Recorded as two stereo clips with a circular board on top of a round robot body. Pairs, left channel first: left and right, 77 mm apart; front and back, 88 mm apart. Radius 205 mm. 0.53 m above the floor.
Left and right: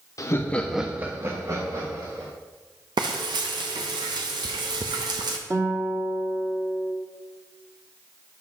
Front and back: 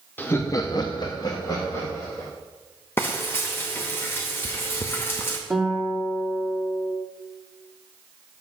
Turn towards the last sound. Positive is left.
turn(degrees=-95)